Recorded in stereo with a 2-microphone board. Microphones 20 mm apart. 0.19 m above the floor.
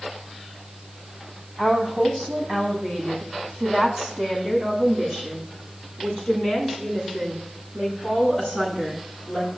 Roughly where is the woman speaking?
Right.